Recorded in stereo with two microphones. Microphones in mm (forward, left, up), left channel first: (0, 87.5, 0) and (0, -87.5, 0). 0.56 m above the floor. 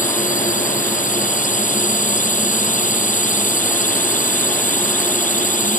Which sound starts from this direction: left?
A drone, at 0.0 s.